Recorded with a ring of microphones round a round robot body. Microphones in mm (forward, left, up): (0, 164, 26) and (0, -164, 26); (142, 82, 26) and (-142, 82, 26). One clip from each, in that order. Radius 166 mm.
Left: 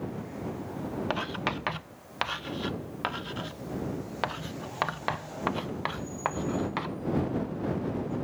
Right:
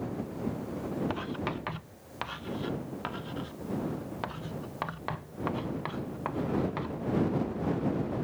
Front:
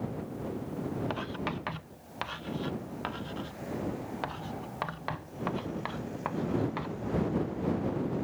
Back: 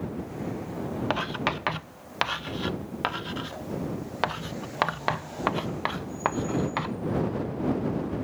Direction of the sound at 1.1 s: 145° left.